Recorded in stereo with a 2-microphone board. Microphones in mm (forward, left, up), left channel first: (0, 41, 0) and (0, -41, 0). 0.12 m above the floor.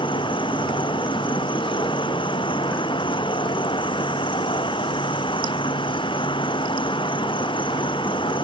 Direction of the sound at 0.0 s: 85° left.